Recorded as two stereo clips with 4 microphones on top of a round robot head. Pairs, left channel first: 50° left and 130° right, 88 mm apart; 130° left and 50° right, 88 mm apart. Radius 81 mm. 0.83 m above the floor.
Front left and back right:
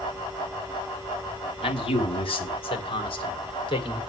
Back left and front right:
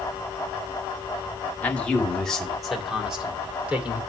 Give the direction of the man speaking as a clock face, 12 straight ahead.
10 o'clock.